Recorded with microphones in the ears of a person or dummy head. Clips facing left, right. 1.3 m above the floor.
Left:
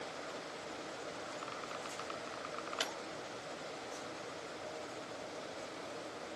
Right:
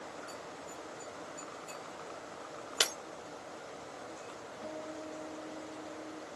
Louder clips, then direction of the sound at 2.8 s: Right 7 dB; 75° right (ahead or behind).